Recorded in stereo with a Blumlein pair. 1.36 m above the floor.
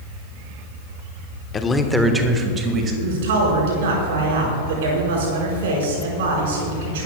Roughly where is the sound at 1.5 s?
Ahead.